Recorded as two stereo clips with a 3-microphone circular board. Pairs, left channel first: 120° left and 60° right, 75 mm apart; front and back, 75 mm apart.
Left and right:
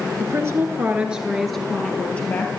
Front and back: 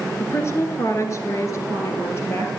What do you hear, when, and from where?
0.2 s a woman speaking: 40° right, 1.5 m; by 2.5 s 55° left, 2.5 m